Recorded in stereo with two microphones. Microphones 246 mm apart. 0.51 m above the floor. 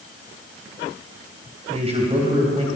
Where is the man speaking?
25° right (ahead or behind), 3 m.